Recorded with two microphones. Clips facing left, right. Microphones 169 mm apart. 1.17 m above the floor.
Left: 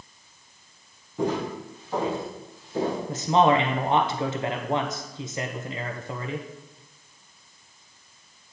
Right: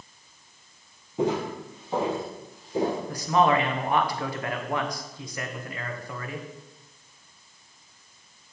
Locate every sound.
1.2 s footsteps: 20° right (ahead or behind), 2.0 m
3.1 s a man speaking: 25° left (ahead or behind), 0.6 m